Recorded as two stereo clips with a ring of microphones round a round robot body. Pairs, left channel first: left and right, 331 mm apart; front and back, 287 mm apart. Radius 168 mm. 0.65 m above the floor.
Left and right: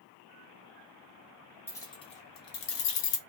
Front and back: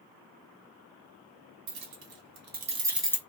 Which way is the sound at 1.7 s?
170° left.